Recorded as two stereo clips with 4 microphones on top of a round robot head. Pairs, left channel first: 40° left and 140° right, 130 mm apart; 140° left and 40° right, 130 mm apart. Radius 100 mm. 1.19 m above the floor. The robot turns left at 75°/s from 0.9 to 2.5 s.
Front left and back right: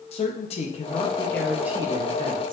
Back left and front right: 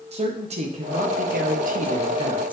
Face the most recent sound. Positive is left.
turn(degrees=-120)